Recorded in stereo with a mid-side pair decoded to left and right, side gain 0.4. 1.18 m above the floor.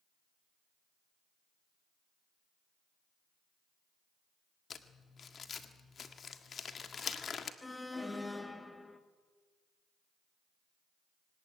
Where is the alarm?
20° left, 2 m.